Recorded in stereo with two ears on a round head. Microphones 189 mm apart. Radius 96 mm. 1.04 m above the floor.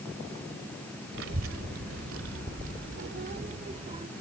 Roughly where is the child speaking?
Right.